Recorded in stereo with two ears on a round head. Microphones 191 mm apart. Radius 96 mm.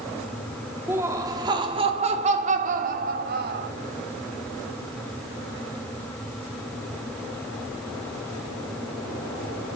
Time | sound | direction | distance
0.9 | laughter | 10° right (ahead or behind) | 2 m